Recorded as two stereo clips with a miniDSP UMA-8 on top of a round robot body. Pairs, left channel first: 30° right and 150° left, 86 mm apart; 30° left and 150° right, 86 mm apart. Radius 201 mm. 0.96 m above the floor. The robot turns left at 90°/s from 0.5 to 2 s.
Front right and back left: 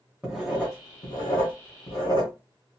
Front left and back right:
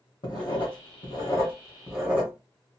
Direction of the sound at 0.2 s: 65° left.